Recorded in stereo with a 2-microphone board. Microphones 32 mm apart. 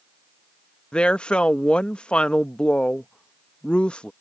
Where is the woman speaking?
35° left (ahead or behind).